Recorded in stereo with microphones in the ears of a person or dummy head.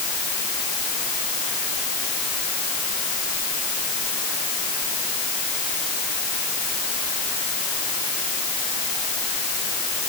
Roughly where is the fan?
No fan in this recording.